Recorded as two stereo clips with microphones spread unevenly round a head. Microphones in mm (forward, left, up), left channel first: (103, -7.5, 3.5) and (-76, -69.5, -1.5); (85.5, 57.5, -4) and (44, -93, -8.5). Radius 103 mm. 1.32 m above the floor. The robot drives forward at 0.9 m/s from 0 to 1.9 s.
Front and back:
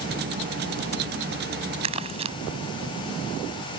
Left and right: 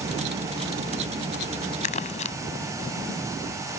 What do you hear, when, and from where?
1.8 s crumpling: 135° left